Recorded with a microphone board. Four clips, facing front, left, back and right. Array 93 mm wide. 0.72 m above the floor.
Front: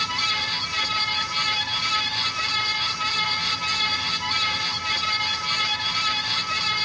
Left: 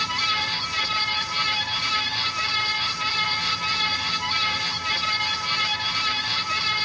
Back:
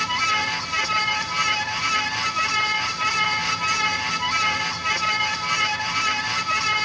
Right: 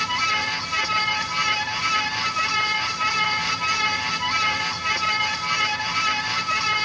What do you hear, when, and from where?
Only background noise.